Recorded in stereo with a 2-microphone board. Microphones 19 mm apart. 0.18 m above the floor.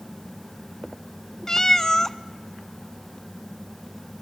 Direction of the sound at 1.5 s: 30° left (ahead or behind).